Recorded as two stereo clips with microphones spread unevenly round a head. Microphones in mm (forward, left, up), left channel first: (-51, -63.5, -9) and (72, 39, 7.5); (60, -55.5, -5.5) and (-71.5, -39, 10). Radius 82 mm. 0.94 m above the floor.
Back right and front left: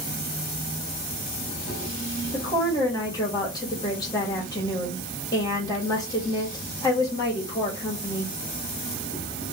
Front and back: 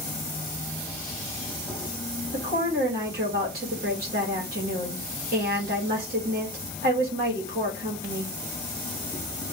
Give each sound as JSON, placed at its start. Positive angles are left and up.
{"t": 0.0, "sound": "an insect", "azimuth_deg": 75, "distance_m": 1.2}
{"t": 2.3, "sound": "a woman speaking", "azimuth_deg": 155, "distance_m": 1.3}